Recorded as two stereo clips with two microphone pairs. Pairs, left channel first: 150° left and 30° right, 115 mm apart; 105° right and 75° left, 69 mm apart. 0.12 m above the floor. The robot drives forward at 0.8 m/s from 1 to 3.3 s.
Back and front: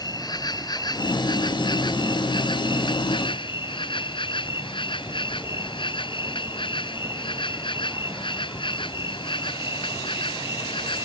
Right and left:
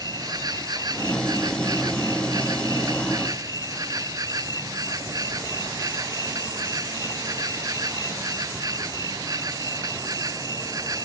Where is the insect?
100° left; by 11.1 s 110° left.